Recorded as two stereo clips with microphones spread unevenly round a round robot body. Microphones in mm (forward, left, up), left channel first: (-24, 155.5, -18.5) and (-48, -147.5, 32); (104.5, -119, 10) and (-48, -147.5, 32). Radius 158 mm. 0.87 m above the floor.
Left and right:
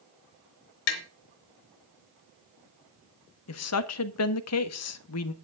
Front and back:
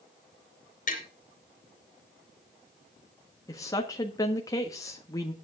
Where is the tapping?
80° left, 3.5 m.